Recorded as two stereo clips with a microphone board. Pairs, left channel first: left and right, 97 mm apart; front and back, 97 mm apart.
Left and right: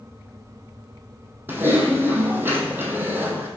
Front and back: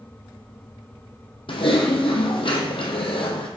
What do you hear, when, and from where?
1.5 s typing on a keyboard: 20° right, 1.1 m